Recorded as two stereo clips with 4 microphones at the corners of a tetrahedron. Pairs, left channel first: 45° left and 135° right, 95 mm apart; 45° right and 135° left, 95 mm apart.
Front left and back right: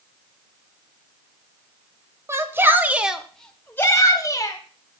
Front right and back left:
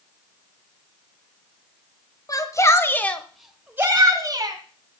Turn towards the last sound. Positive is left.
turn(degrees=95)